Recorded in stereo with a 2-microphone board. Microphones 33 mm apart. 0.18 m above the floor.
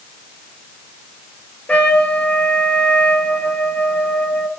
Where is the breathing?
I don't hear breathing.